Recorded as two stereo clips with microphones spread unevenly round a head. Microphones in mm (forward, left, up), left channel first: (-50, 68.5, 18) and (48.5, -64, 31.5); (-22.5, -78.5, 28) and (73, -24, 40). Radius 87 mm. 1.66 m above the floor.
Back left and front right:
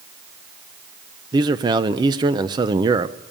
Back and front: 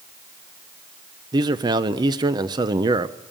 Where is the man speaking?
Straight ahead, 0.7 m.